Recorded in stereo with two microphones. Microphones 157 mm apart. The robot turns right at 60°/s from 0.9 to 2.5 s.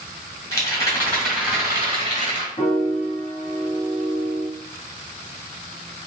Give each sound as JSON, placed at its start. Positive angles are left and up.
{"t": 0.5, "sound": "a rattle", "azimuth_deg": 160, "distance_m": 1.7}
{"t": 2.6, "sound": "a piano", "side_deg": 35, "distance_m": 1.7}